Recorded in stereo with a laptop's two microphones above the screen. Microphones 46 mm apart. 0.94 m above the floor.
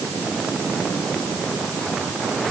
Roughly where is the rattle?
I don't hear a rattle.